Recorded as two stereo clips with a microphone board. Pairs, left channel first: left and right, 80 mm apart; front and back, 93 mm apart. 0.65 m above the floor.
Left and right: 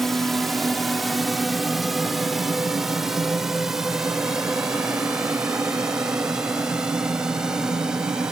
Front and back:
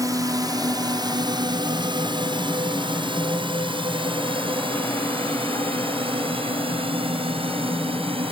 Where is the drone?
175° left; by 8.3 s 170° right.